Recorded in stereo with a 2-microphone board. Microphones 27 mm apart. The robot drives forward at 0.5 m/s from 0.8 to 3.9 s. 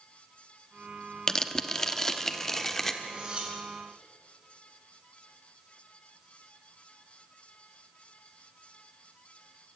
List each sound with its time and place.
1.3 s tearing paper: 20° left (ahead or behind), 0.9 m; by 2.9 s 10° left (ahead or behind), 1.6 m
3.0 s cutlery clinking: 35° right (ahead or behind), 5.5 m